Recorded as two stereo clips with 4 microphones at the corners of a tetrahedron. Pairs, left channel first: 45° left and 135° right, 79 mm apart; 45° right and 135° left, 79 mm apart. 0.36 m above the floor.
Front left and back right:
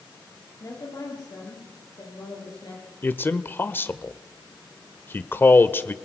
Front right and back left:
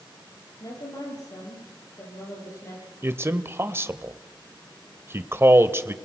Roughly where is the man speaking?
Left.